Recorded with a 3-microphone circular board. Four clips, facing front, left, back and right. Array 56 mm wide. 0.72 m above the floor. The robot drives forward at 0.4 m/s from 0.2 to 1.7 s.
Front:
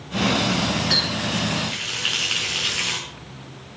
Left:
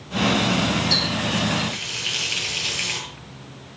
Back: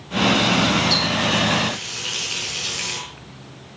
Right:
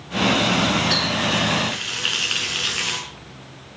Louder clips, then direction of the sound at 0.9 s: Right 2 dB, back 4 dB; 60° right.